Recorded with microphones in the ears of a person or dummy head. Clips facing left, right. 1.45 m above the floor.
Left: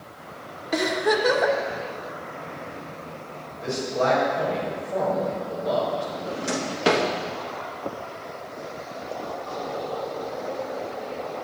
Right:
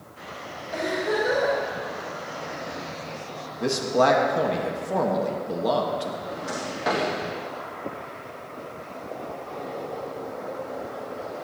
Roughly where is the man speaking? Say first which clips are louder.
Right 3 dB; right.